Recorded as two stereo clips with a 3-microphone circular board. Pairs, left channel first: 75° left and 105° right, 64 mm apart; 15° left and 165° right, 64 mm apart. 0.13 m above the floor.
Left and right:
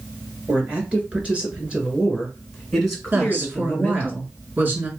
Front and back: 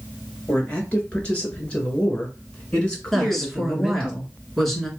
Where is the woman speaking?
70° right, 1.7 m.